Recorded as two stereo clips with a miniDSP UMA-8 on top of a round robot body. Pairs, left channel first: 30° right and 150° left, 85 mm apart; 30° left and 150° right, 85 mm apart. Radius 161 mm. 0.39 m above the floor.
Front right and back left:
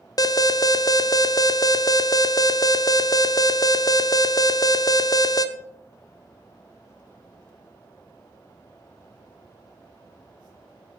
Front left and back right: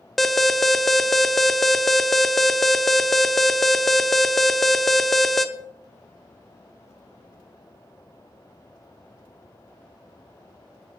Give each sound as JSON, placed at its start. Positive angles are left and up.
{"t": 0.2, "sound": "an alarm", "azimuth_deg": -60, "distance_m": 1.0}